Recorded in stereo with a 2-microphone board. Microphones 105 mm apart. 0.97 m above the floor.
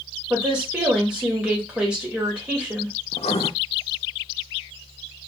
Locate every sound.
0.3 s a woman speaking: 10° right (ahead or behind), 1.7 m
3.1 s writing: 80° left, 0.6 m